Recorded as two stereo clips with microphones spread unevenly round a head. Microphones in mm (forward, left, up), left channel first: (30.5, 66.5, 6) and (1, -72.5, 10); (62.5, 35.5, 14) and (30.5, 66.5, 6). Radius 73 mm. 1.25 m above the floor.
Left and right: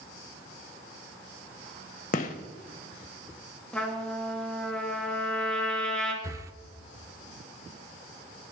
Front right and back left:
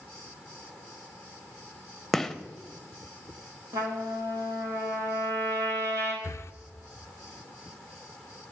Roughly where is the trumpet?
Behind.